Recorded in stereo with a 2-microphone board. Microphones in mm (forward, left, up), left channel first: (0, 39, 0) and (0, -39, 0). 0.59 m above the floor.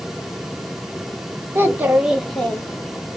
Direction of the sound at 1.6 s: 30° right (ahead or behind).